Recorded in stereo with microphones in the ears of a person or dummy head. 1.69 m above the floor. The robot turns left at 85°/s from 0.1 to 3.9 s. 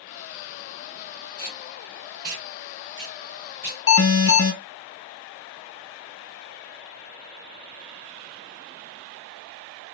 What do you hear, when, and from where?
1.4 s tape being pulled: 20° left (ahead or behind), 1.1 m; by 4.4 s 10° left (ahead or behind), 1.1 m
3.9 s an alarm: 65° left (ahead or behind), 1.4 m